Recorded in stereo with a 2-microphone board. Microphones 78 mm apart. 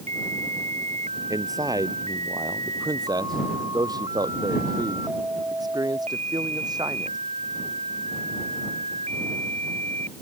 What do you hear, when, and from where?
1.3 s a man speaking: 50° right (ahead or behind); by 7.2 s 60° right (ahead or behind)